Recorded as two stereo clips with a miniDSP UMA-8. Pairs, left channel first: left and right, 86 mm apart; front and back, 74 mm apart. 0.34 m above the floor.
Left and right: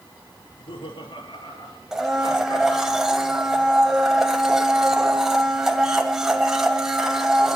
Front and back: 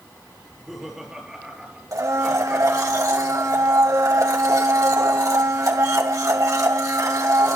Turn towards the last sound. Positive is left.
turn(degrees=-170)